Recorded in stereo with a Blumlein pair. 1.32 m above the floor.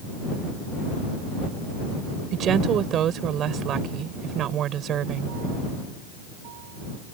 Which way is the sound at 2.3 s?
30° right.